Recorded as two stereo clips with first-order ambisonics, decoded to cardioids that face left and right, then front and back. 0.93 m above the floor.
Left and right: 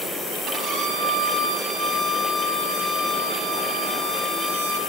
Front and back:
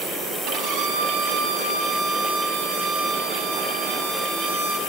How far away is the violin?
About 5.5 m.